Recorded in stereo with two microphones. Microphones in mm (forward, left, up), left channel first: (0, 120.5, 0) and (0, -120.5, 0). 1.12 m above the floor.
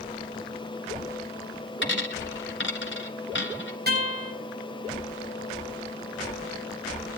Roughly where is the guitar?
Right.